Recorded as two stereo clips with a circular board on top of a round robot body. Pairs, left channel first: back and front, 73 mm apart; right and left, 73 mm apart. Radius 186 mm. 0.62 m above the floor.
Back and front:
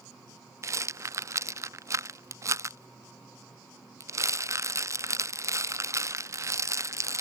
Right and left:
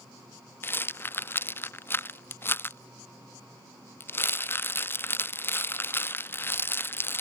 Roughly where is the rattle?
Ahead right.